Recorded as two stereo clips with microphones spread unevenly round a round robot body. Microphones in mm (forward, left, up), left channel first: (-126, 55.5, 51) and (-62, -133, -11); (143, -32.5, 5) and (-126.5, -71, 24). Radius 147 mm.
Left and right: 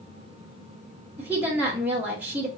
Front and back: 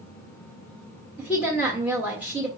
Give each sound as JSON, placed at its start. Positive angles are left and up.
{"t": 1.2, "sound": "a woman speaking", "azimuth_deg": -85, "distance_m": 1.1}